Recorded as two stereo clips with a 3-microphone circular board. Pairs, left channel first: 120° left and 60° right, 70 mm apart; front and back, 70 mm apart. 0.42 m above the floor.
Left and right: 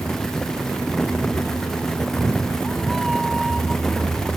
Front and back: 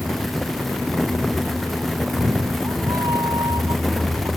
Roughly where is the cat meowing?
Behind right.